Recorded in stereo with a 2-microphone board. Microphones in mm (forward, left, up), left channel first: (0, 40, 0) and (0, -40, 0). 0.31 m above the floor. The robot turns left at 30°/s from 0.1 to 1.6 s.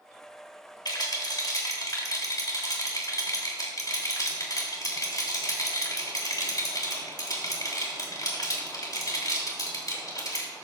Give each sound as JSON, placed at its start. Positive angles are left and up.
{"t": 0.8, "sound": "a rattle", "side_deg": 60, "distance_m": 3.0}